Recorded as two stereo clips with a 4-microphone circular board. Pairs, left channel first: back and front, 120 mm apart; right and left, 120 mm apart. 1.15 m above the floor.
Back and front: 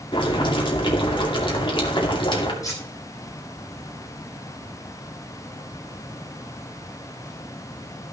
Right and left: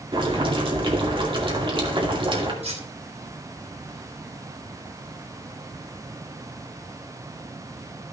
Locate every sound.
0.1 s boiling: 135° left, 2.5 m
2.6 s cutlery clinking: 120° left, 3.5 m